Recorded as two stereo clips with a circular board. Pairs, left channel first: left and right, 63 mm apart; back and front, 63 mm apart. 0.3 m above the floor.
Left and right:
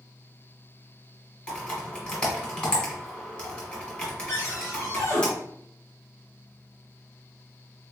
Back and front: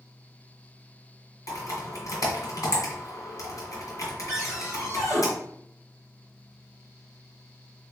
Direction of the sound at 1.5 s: 160° left.